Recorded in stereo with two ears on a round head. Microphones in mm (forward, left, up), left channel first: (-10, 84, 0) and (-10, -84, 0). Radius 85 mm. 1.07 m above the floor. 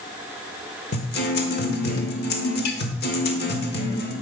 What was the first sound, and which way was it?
A guitar, 60° left (ahead or behind).